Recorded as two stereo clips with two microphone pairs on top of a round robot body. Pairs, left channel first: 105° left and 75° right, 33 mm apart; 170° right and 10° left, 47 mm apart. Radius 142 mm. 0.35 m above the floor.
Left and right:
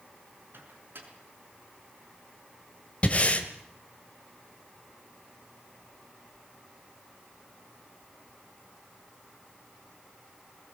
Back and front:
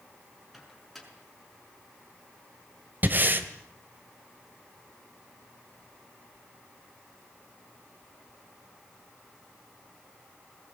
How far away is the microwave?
About 6 m.